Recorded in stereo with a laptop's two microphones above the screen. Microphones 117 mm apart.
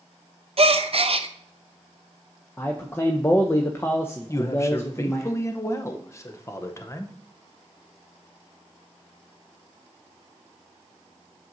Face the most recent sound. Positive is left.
turn(degrees=25)  # may be behind; listen again after turning